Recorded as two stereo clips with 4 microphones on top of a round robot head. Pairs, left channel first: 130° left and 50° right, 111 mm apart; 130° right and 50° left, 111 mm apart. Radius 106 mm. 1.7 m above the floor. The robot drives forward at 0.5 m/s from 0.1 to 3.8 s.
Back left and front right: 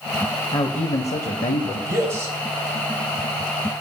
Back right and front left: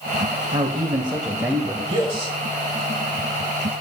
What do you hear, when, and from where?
0.5 s a man speaking: 85° left, 0.6 m; by 1.8 s 130° left, 0.8 m
1.9 s a man speaking: straight ahead, 1.9 m